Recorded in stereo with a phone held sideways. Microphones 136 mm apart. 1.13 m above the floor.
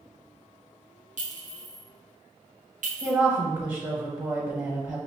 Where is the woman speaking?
20° right (ahead or behind), 0.8 m.